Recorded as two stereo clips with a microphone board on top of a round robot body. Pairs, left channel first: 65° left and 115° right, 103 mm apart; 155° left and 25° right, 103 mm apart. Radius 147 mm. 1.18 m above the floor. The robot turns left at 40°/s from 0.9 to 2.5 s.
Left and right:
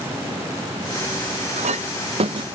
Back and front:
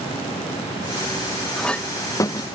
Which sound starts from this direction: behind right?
A clink, at 1.6 s.